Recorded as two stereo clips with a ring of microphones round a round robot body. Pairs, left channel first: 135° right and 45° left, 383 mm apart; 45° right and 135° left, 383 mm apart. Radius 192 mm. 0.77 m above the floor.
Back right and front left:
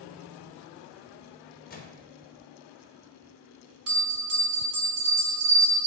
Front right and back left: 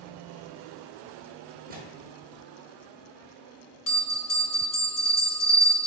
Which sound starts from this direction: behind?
A microwave, at 1.7 s.